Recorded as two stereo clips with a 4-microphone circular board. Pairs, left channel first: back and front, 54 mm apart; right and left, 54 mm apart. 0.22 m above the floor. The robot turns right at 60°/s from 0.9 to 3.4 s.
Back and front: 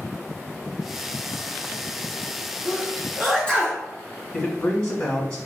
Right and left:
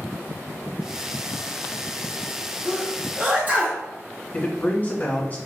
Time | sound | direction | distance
2.6 | a sneeze | 70° left | 1.6 m
4.3 | a man speaking | 115° right | 1.1 m